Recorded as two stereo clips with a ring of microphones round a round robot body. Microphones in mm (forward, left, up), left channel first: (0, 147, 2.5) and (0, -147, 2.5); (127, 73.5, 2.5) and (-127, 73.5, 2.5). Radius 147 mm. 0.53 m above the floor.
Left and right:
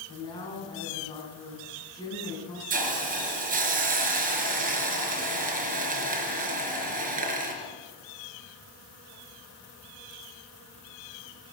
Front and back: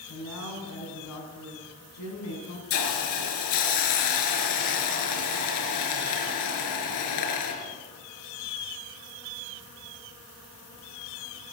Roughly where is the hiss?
Ahead right.